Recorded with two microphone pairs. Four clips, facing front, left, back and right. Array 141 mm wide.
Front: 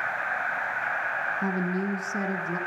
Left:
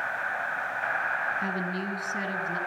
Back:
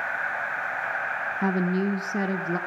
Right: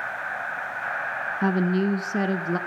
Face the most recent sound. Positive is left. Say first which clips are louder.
# right 8 dB, back 7 dB
turn(degrees=-115)